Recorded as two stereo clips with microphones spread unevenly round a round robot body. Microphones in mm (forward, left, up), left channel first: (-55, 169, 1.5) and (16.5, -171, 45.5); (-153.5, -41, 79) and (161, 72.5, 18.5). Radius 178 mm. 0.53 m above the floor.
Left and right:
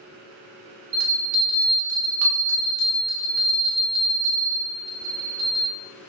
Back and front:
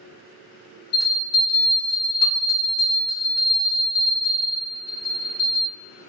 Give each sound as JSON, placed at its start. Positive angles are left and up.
{"t": 0.9, "sound": "a bell", "azimuth_deg": -110, "distance_m": 0.5}